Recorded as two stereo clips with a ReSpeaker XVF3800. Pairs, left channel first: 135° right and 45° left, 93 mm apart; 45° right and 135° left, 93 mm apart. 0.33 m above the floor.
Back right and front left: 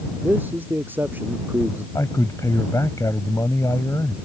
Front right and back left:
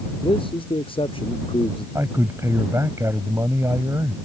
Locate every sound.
0.2 s a man speaking: 25° right
1.9 s a man speaking: 175° right